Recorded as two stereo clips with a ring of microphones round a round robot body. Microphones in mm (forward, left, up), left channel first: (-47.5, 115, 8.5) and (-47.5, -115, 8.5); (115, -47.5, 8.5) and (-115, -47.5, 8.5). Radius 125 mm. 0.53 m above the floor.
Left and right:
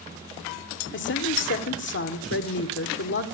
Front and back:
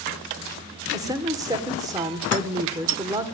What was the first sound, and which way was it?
A woman speaking, 105° left.